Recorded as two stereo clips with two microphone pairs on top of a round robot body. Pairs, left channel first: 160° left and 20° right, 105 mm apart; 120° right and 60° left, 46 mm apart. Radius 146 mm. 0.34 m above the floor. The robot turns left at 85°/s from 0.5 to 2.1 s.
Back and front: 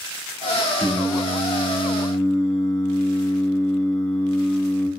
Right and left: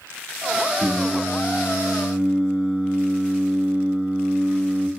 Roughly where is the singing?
Behind right.